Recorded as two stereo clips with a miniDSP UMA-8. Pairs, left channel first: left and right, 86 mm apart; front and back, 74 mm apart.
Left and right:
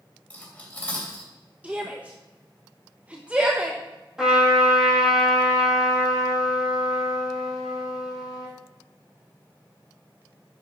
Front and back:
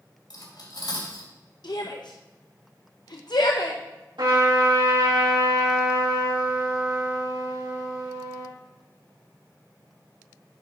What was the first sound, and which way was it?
Cutlery clinking, 20° left.